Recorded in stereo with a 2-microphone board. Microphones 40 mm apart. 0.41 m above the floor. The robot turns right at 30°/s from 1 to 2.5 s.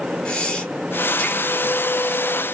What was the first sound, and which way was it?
Breathing, 20° left (ahead or behind).